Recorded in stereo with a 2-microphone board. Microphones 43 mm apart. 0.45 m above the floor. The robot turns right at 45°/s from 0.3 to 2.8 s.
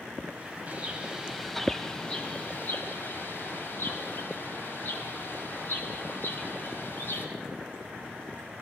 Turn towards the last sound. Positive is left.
turn(degrees=60)